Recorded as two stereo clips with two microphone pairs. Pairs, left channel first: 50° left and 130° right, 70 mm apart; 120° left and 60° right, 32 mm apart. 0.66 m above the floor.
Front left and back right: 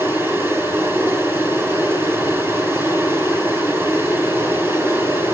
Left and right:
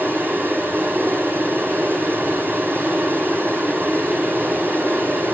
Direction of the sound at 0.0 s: 80° right.